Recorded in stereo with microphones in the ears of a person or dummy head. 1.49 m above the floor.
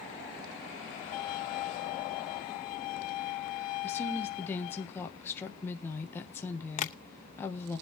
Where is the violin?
40° left (ahead or behind), 1.8 m.